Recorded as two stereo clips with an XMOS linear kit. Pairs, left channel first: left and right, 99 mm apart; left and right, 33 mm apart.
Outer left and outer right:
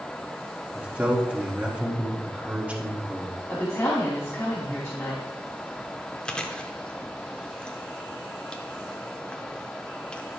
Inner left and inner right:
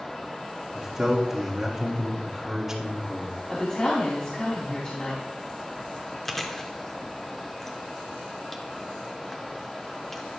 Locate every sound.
0.7 s a man speaking: 10° right (ahead or behind), 1.5 m
3.5 s a woman speaking: 25° left (ahead or behind), 1.4 m
6.2 s chewing: 10° left (ahead or behind), 0.8 m